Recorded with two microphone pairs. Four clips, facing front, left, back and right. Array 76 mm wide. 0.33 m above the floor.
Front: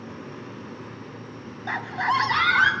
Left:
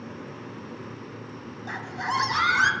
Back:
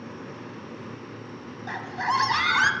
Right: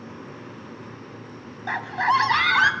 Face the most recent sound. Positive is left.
turn(degrees=-100)